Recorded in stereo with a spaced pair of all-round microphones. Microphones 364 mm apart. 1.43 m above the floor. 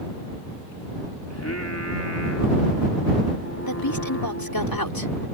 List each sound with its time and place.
1.3 s singing: 45° left (ahead or behind)
3.7 s a woman speaking: 70° left (ahead or behind)